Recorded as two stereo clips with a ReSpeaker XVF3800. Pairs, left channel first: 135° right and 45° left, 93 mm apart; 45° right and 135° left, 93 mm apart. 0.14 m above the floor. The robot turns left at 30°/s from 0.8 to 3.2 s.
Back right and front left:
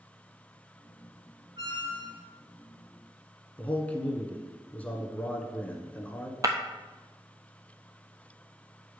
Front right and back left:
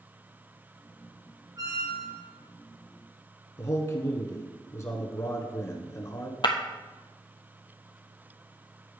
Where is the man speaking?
75° right, 1.4 m.